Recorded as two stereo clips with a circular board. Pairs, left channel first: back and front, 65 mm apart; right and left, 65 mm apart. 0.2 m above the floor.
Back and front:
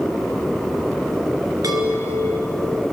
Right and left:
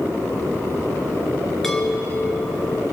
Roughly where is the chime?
Ahead.